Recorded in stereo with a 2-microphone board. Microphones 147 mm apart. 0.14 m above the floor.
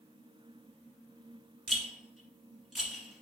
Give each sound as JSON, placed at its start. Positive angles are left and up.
{"t": 1.7, "sound": "a rattle", "side_deg": 0, "distance_m": 1.3}